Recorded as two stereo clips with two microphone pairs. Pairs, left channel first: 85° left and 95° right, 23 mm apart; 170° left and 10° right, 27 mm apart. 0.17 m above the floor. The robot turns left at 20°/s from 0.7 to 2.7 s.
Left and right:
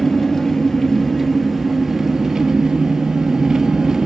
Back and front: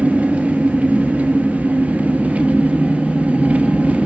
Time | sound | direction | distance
0.0 | an engine running | 15° left | 2.5 m